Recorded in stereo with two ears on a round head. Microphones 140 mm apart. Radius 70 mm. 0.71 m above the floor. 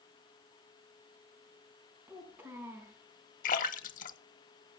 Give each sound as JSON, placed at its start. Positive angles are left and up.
{"t": 2.1, "sound": "a child speaking", "side_deg": -15, "distance_m": 3.5}
{"t": 3.4, "sound": "a splash", "side_deg": 55, "distance_m": 0.8}